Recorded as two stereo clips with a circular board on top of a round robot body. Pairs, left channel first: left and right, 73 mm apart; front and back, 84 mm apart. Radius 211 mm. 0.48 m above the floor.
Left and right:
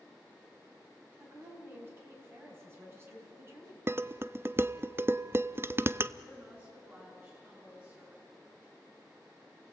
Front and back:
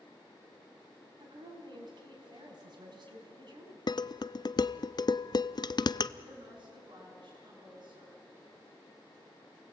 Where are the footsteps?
No footsteps in this recording.